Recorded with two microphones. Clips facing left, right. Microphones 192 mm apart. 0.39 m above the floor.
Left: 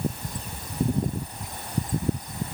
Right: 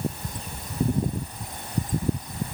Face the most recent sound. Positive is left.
No sound to turn to.